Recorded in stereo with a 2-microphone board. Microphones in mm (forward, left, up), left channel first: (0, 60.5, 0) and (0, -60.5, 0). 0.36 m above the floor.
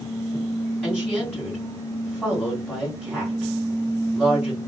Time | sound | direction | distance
0.8 | a woman speaking | centre (ahead or behind) | 2.0 m